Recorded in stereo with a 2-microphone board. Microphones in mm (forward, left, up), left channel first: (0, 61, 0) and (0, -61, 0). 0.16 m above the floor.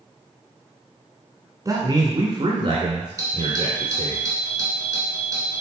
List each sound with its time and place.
1.6 s a man speaking: 30° right (ahead or behind), 1.3 m; by 4.2 s 60° right (ahead or behind), 2 m
3.2 s a doorbell: 30° right (ahead or behind), 2.5 m